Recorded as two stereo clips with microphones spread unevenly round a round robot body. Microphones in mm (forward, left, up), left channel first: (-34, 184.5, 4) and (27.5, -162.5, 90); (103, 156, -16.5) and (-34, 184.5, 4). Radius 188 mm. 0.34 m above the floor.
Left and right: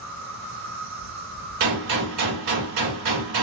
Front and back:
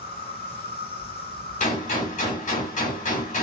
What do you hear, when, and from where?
0.0 s an insect: 25° right, 1.9 m
1.6 s a gunshot: 40° right, 2 m